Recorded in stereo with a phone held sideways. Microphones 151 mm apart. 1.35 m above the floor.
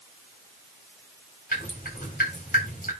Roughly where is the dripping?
Left.